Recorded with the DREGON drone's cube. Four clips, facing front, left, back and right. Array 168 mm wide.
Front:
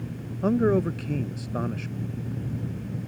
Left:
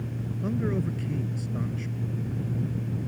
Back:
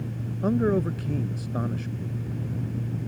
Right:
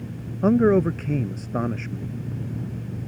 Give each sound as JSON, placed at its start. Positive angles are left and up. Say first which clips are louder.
{"t": 0.4, "sound": "a man speaking", "louder": "right 12 dB, front 2 dB", "azimuth_deg": -80}